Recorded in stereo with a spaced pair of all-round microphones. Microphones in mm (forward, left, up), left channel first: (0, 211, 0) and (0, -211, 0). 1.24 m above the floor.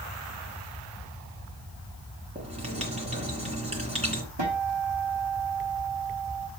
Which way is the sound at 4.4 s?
75° right (ahead or behind).